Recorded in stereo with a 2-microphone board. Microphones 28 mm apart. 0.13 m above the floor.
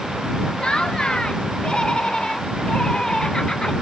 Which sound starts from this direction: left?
Laughter, at 0.6 s.